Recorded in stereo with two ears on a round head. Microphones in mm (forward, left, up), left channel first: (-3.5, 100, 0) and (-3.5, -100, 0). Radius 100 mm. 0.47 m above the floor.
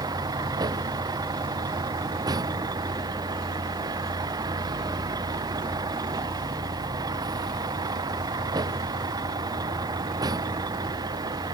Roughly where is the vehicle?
Centre.